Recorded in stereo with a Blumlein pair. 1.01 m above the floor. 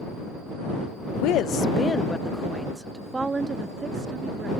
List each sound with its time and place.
1.1 s a woman speaking: 45° left; by 4.5 s 20° right